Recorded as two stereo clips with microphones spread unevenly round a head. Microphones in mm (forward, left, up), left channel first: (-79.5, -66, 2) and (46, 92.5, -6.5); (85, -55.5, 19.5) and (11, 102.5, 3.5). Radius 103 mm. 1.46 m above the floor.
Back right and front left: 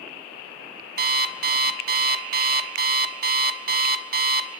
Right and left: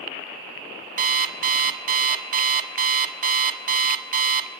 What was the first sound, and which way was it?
An alarm clock, 85° left.